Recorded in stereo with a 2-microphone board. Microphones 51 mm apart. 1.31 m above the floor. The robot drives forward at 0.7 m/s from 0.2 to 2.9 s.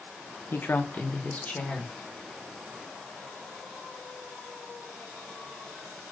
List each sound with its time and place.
0.5 s a woman speaking: 50° left (ahead or behind), 0.9 m; by 1.9 s 25° left (ahead or behind), 1.8 m